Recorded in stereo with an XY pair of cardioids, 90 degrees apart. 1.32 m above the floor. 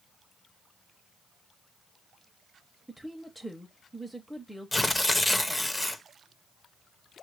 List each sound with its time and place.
2.9 s a woman speaking: straight ahead, 0.7 m
4.7 s tearing paper: 10° left, 0.6 m